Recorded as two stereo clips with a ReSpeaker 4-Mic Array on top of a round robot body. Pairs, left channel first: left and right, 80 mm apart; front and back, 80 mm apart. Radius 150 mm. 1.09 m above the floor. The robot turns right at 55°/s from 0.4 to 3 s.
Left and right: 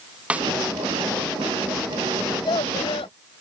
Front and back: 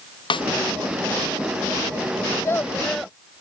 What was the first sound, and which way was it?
A snare drum, 15° right.